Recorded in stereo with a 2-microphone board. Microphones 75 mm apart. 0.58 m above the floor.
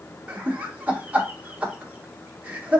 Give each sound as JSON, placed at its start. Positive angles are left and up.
{"t": 0.3, "sound": "laughter", "side_deg": -20, "distance_m": 1.1}